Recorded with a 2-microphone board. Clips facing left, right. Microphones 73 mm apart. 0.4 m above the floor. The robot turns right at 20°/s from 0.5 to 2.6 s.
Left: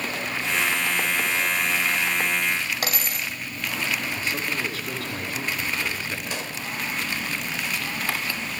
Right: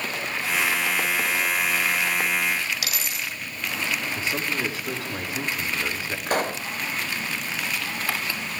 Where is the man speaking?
25° right (ahead or behind), 5 m.